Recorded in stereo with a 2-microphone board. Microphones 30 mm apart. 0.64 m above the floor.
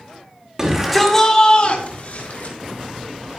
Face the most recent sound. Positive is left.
turn(degrees=65)  # may be behind; listen again after turning